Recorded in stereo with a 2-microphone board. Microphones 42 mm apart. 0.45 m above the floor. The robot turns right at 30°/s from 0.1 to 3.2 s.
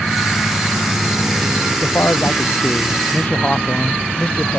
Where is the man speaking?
105° left; by 4.6 s 145° left.